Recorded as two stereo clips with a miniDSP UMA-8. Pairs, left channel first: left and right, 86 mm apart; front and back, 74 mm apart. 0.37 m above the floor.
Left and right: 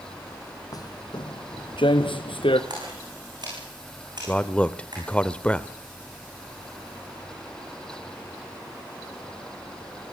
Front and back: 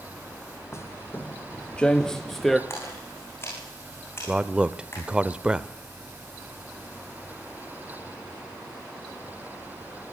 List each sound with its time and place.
0.7 s footsteps: 50° left, 0.8 m; by 2.6 s 90° left, 1.6 m
2.7 s a splash: 55° right, 9 m
4.3 s a man speaking: 135° left, 0.9 m